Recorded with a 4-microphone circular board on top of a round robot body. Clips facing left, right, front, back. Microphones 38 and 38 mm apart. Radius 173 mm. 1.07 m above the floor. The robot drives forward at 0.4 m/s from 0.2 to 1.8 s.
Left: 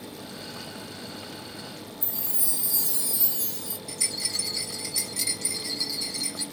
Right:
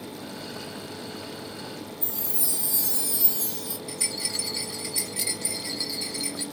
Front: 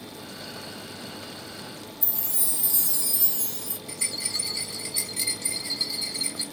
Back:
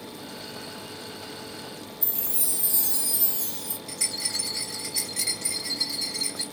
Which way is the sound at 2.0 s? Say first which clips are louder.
Right 2 dB, back 1 dB; 130° right.